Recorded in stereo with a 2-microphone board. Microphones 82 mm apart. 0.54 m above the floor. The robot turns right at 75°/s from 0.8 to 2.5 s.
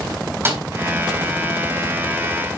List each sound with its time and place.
0.5 s a snare drum: 30° right (ahead or behind), 3.5 m